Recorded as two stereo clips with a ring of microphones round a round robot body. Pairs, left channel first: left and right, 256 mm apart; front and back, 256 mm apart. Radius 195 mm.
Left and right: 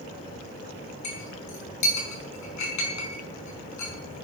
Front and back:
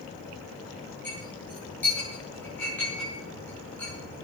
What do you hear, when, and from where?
1.0 s a clink: 85° left, 6 m